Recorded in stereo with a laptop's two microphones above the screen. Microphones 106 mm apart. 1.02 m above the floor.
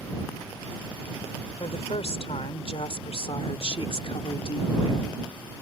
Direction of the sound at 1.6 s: 70° left (ahead or behind).